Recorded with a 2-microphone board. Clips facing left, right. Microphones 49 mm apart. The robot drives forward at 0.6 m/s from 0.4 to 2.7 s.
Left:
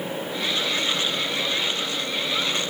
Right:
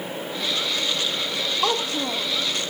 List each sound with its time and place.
1.6 s a child speaking: 80° right; by 2.3 s 85° right